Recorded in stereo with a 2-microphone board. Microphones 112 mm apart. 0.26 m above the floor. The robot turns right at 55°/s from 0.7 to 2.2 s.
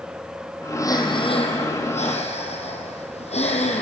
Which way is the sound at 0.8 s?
25° left.